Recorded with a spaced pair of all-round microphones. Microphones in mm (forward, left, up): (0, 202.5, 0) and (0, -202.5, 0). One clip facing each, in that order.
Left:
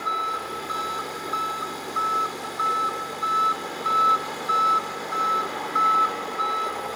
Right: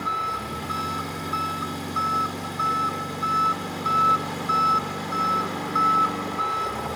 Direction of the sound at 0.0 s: 45° right (ahead or behind).